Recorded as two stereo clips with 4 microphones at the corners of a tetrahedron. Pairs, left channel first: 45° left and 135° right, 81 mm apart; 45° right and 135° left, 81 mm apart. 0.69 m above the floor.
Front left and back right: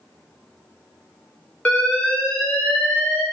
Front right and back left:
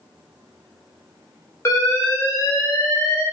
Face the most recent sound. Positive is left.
turn(degrees=-20)